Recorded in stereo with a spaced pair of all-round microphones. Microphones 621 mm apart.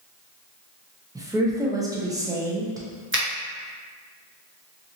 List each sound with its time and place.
1.1 s a woman speaking: 5° right (ahead or behind), 0.5 m
3.1 s a finger snap: 20° right (ahead or behind), 0.6 m